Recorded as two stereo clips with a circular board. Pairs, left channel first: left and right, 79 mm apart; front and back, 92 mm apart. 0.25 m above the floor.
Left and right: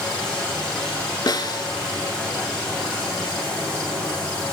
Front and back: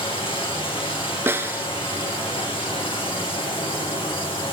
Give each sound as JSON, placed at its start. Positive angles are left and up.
{"t": 0.0, "sound": "running water", "azimuth_deg": 10, "distance_m": 6.5}
{"t": 1.3, "sound": "a snare drum", "azimuth_deg": 115, "distance_m": 0.8}